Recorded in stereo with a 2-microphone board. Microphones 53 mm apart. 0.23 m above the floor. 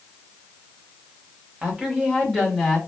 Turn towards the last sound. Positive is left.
turn(degrees=0)  # may be behind; listen again after turning